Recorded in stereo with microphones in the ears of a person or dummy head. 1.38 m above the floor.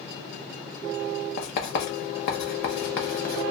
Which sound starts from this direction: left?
Writing, at 1.4 s.